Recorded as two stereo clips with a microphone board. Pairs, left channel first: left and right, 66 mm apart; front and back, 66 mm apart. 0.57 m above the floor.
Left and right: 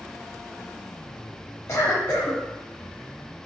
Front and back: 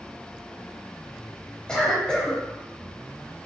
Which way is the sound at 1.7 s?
60° left.